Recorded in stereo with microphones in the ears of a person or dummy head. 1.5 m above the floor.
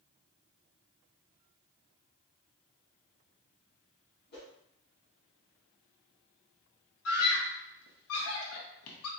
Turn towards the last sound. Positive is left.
turn(degrees=80)